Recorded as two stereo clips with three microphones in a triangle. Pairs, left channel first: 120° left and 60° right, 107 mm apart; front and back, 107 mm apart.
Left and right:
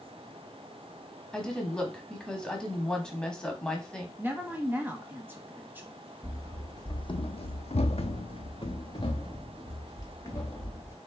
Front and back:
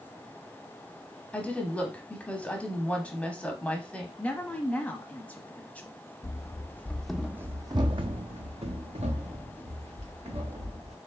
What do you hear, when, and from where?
1.3 s a woman speaking: 50° left, 1.0 m
4.2 s a woman speaking: 50° right, 1.0 m
6.2 s running footsteps: 55° left, 0.8 m; by 11.0 s straight behind, 2 m